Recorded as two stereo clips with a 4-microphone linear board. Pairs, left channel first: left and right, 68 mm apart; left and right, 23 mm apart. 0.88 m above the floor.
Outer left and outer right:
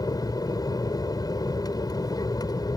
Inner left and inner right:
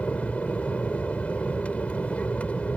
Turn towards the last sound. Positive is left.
turn(degrees=65)  # may be behind; listen again after turning